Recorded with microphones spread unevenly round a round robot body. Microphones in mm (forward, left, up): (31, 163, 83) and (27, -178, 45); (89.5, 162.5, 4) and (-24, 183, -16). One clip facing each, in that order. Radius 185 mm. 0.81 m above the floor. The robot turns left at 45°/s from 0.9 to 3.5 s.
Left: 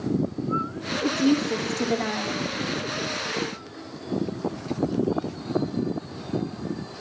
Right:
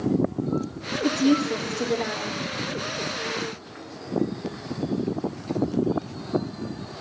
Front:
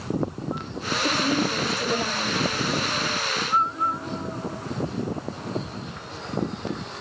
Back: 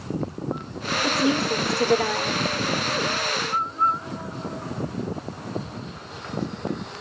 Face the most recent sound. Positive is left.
turn(degrees=80)